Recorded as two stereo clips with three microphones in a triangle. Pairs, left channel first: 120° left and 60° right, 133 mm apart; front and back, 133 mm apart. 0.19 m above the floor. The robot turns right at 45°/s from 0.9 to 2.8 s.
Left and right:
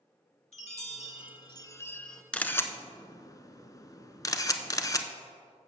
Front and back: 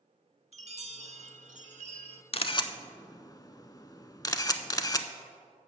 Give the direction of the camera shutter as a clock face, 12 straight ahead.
11 o'clock.